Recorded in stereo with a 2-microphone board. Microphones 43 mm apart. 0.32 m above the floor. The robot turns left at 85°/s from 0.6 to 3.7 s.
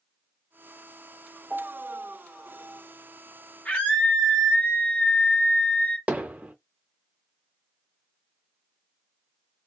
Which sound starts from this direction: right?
Hammering, at 6.1 s.